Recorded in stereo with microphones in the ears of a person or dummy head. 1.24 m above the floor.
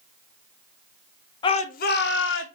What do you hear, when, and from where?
1.4 s a shout: 25° left (ahead or behind), 0.5 m; by 2.5 s 60° left (ahead or behind), 1.0 m